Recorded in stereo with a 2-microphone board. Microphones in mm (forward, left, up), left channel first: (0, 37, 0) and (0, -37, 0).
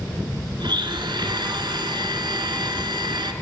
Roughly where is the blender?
Right.